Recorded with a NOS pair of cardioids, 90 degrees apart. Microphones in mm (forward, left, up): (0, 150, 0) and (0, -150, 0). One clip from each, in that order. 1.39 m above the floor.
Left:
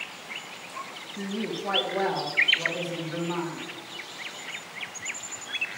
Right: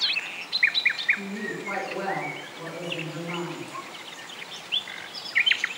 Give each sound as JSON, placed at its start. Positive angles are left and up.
{"t": 1.2, "sound": "a woman speaking", "azimuth_deg": 60, "distance_m": 2.5}